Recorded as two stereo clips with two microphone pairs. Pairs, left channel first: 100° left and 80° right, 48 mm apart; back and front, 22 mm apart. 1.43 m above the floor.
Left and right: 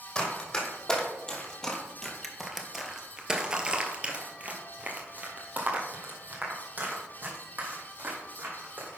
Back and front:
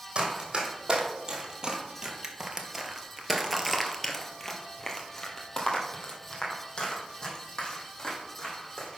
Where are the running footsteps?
35° left, 2.5 m; by 9.0 s 130° right, 4.5 m.